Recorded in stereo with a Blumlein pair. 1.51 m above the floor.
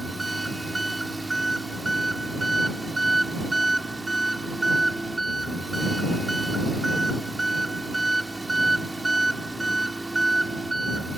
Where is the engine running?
5° right.